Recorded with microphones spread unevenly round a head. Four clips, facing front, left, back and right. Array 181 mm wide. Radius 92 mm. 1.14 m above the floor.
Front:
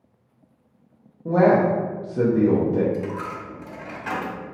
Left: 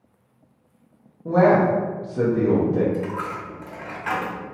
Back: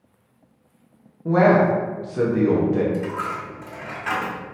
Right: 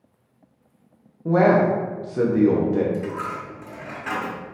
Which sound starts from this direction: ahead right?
A man speaking, at 1.2 s.